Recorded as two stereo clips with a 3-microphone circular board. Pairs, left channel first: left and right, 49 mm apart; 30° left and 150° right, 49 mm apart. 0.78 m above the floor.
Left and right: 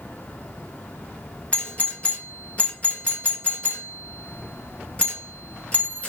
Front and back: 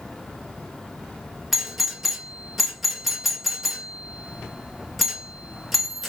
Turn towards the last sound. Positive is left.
turn(degrees=120)